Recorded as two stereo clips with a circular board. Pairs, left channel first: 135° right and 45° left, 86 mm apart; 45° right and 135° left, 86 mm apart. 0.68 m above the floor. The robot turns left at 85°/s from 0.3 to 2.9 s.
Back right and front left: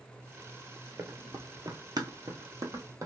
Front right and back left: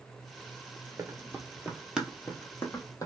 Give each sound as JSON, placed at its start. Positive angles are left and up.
{"t": 1.0, "sound": "running footsteps", "azimuth_deg": 95, "distance_m": 0.9}